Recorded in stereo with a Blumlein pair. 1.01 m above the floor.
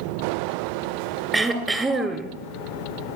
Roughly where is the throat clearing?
Ahead.